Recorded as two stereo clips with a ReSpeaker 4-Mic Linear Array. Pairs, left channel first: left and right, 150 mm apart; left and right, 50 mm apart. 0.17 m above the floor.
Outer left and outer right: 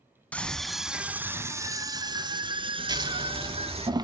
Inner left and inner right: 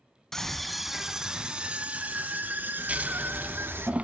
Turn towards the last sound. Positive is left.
turn(degrees=-30)  # may be behind; listen again after turning